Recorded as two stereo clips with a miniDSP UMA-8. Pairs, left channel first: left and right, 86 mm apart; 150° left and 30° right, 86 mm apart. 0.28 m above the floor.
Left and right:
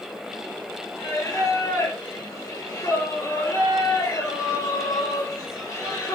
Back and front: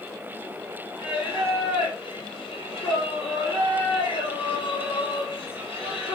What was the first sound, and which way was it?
Singing, 145° left.